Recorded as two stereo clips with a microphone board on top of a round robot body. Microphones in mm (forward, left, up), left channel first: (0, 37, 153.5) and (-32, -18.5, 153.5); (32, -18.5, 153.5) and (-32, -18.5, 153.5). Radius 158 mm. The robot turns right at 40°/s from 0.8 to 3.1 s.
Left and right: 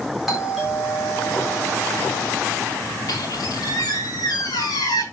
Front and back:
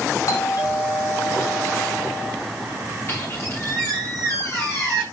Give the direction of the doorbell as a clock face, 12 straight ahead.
1 o'clock.